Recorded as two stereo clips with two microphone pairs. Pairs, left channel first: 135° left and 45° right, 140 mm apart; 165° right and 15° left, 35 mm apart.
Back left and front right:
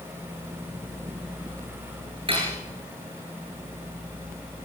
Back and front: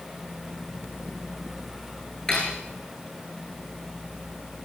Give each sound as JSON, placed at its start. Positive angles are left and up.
{"t": 2.3, "sound": "cutlery clinking", "azimuth_deg": -95, "distance_m": 9.5}